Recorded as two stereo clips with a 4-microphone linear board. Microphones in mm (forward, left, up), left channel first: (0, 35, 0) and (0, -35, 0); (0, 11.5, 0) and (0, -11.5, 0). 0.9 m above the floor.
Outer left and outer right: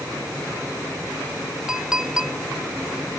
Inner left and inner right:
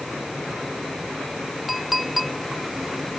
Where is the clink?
10° right (ahead or behind).